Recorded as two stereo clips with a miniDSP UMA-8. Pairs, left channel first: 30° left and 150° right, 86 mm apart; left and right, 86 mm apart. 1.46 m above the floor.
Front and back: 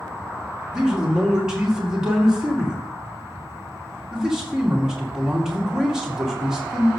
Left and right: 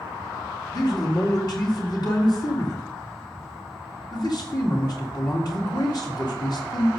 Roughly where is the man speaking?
Behind left.